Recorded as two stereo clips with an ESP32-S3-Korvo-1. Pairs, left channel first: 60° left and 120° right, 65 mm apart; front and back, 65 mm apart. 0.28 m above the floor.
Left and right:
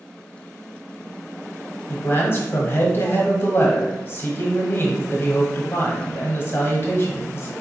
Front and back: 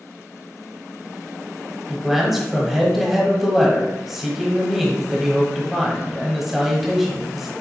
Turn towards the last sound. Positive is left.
turn(degrees=95)